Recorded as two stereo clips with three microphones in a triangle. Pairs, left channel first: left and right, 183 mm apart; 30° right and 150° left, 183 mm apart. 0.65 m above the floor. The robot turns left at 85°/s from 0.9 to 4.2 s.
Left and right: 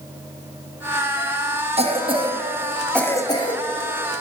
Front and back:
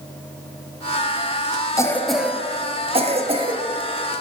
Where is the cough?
90° right, 0.7 m; by 3.6 s 115° left, 0.7 m.